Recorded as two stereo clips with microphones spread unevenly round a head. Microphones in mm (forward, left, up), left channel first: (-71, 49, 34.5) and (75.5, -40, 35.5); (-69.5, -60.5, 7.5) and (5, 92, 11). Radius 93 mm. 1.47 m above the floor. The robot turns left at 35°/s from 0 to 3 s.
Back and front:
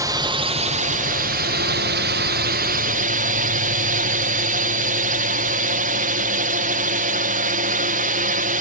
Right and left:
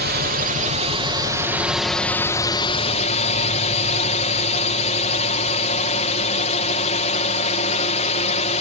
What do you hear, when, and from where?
0.0 s a drone: 40° left; by 8.6 s 65° right